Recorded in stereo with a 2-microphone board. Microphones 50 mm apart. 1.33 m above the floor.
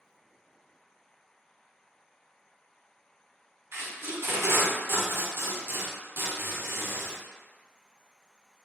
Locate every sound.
3.7 s tape being pulled: 50° right (ahead or behind), 0.8 m